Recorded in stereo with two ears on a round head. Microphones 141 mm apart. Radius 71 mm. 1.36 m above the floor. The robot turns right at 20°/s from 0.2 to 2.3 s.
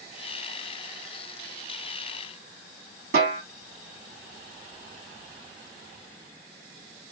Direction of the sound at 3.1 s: 70° right (ahead or behind).